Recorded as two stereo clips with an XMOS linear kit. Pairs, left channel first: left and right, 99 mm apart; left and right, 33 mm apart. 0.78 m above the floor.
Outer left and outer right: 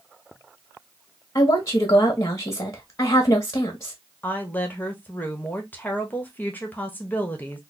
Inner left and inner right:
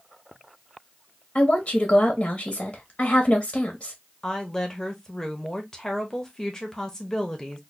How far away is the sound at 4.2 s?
About 1.0 m.